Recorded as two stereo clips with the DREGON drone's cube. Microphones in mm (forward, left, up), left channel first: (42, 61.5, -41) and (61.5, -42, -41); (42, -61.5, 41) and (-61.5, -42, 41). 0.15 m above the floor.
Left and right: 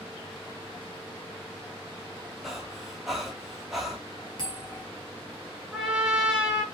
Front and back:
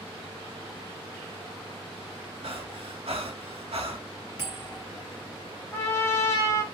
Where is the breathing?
165° right, 0.6 m.